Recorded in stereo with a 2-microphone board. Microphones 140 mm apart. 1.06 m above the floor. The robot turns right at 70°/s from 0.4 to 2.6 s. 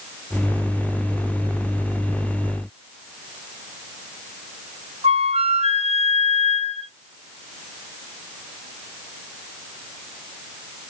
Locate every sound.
5.0 s a flute: 45° right (ahead or behind), 0.6 m